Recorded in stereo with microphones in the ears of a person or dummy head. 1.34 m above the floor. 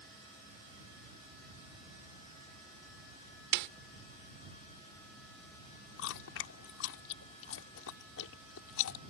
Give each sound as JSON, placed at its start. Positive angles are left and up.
{"t": 3.5, "sound": "a snare drum", "side_deg": -65}
{"t": 6.0, "sound": "chewing", "side_deg": 70}